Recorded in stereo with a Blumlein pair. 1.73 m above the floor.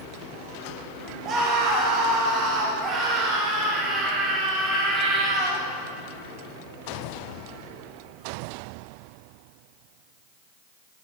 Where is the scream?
35° right, 8 m; by 5.7 s 20° right, 10 m.